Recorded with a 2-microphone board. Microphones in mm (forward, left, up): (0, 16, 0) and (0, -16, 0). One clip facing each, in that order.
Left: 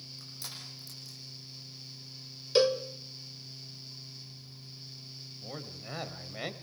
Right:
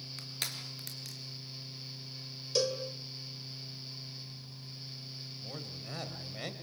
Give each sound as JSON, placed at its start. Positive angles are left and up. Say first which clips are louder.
{"t": 0.2, "sound": "crushing", "louder": "right 6 dB", "side_deg": -85, "distance_m": 4.0}
{"t": 2.5, "sound": "a cowbell", "louder": "left 7 dB", "side_deg": 35, "distance_m": 1.5}
{"t": 5.4, "sound": "a man speaking", "louder": "left 3 dB", "side_deg": 15, "distance_m": 2.5}